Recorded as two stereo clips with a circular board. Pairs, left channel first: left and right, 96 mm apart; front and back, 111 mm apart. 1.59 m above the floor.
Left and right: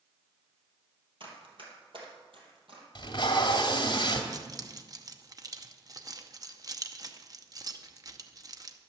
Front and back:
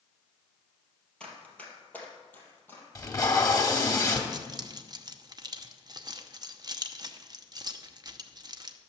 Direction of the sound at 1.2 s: 80° right.